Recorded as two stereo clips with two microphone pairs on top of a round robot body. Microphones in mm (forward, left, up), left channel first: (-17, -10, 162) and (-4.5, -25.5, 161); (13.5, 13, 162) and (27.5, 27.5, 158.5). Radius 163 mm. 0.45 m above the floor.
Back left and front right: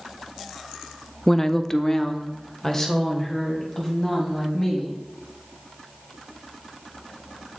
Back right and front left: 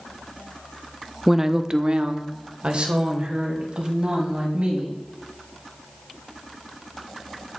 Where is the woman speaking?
85° left, 0.7 m; by 4.9 s 65° left, 4.5 m.